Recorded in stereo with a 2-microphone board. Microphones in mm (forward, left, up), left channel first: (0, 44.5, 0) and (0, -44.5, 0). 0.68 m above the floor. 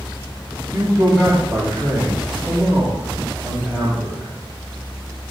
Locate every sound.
0.7 s a man speaking: 5° left (ahead or behind), 3 m